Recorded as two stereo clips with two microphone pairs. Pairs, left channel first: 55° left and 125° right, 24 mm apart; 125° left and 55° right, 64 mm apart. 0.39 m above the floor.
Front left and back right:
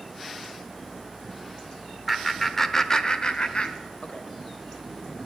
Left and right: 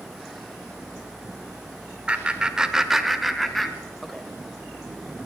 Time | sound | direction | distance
2.1 | laughter | 35° right | 0.9 m